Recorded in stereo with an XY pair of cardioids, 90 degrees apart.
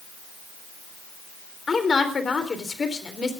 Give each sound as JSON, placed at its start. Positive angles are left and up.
{"t": 1.7, "sound": "a woman speaking", "azimuth_deg": 35, "distance_m": 3.5}